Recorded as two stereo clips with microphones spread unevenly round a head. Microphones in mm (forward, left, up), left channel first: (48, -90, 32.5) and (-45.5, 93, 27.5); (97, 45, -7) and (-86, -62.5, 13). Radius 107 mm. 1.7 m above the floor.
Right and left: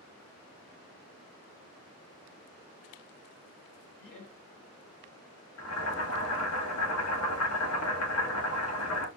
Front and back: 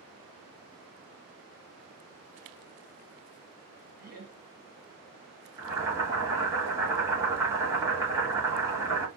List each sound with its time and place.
4.0 s laughter: 105° right, 1.6 m
5.6 s boiling: 75° right, 0.9 m